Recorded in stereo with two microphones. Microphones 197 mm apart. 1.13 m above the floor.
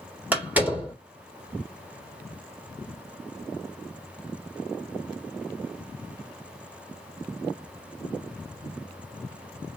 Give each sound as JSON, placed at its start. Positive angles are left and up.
{"t": 0.3, "sound": "a door slam", "side_deg": -10, "distance_m": 1.8}